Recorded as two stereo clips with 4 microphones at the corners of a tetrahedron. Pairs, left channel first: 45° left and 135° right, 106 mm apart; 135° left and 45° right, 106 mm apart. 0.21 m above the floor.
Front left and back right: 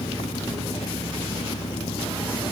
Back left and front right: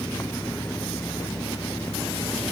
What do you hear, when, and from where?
0.0 s an engine running: 65° left